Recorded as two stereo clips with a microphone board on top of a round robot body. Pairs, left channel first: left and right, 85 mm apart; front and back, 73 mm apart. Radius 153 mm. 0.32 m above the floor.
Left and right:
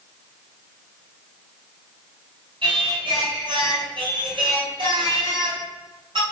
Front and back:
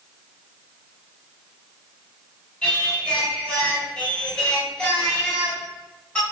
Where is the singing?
80° right, 4.5 m.